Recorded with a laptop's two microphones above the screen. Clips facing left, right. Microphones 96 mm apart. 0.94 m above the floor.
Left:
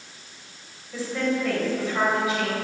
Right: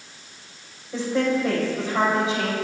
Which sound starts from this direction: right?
A woman speaking, at 0.9 s.